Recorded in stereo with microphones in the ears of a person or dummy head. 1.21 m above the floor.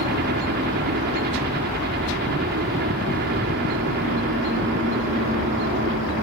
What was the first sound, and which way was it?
A helicopter, 50° right (ahead or behind).